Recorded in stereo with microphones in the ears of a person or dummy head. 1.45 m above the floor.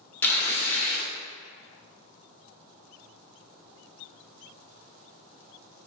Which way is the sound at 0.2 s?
10° left (ahead or behind).